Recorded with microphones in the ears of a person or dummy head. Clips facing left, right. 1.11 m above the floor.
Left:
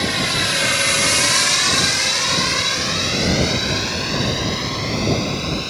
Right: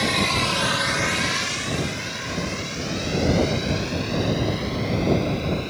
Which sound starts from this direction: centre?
A drone, at 0.0 s.